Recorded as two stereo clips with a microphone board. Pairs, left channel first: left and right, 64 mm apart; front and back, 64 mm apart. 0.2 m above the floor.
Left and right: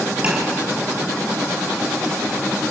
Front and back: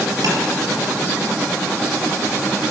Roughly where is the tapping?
Behind.